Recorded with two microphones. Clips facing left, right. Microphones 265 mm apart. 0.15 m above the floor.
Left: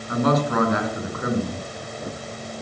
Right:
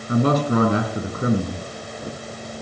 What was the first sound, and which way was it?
A man speaking, 30° right (ahead or behind).